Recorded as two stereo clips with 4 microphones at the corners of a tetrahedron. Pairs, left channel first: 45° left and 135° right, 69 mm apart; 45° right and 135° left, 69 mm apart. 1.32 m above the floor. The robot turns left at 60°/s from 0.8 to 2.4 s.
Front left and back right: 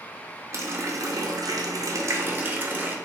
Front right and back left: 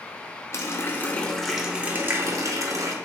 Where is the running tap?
95° right, 0.5 m; by 3.0 s 170° left, 0.5 m.